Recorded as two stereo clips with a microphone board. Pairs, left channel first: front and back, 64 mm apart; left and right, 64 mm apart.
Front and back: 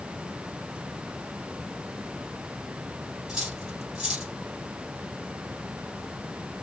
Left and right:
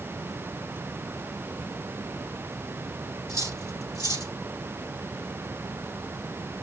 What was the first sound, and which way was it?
Cutlery clinking, 100° left.